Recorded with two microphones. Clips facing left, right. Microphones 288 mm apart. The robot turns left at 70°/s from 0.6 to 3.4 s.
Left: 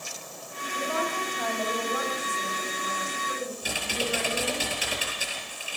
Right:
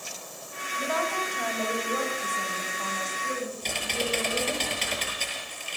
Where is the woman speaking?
45° left, 8 m; by 4.6 s 140° right, 8 m.